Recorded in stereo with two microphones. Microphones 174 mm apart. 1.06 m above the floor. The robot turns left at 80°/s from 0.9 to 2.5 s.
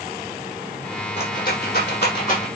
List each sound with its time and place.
1.2 s a rattle: 35° left (ahead or behind), 7.5 m; by 2.5 s 40° left (ahead or behind), 7.5 m